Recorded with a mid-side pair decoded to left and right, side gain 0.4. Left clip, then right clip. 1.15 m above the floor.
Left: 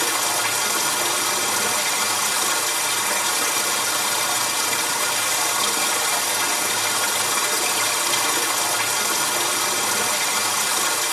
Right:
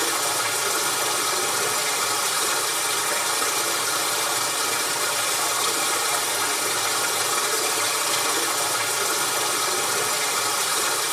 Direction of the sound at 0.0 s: 60° left.